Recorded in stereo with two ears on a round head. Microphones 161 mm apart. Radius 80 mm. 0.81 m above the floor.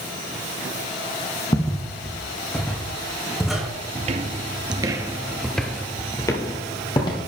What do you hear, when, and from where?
1.5 s footsteps: 20° left (ahead or behind), 1.5 m; by 3.7 s centre (ahead or behind), 2.5 m
4.0 s footsteps: 35° right (ahead or behind), 1.1 m; by 7.3 s 25° left (ahead or behind), 1.6 m